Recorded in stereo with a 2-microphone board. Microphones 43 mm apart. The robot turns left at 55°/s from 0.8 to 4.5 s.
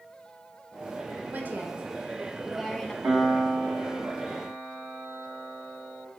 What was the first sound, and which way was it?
A woman speaking, 105° right.